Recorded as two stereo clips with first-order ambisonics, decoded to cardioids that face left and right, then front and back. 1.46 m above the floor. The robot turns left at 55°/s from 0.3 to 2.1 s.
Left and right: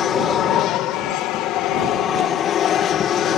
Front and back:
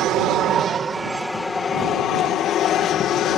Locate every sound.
0.0 s an aircraft: 140° left; by 3.4 s 40° left